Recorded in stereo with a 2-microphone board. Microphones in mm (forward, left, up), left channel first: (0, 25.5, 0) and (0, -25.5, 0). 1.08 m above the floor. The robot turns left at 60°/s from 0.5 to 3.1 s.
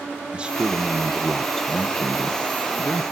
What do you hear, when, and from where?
0.3 s a man speaking: 130° right, 0.8 m; by 3.0 s 75° left, 0.8 m